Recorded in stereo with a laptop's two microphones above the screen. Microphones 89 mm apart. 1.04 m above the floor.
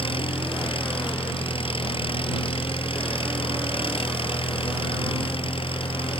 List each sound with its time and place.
0.0 s an engine running: 85° left